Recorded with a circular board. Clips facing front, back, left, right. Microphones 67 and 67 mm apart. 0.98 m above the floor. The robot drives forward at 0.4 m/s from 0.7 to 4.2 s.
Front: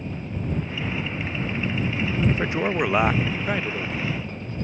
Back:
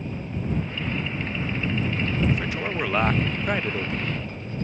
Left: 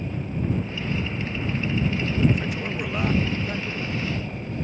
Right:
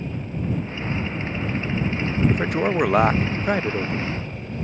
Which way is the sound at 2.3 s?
55° right.